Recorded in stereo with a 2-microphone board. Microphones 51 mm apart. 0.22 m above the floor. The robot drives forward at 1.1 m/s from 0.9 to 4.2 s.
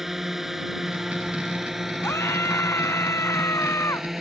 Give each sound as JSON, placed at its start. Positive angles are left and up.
{"t": 0.0, "sound": "a drone", "side_deg": -5}
{"t": 2.0, "sound": "a scream", "side_deg": 60}